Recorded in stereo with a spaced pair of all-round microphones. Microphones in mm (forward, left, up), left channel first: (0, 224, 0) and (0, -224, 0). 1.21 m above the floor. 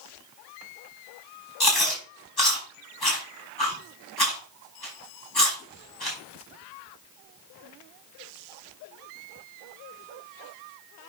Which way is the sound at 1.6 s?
55° left (ahead or behind).